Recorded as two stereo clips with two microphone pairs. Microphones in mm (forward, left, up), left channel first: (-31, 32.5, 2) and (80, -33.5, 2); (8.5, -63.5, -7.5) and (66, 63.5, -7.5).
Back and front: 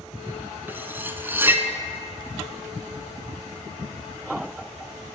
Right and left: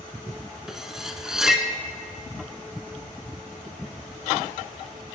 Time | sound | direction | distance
0.7 | cutlery clinking | 10° right | 0.7 m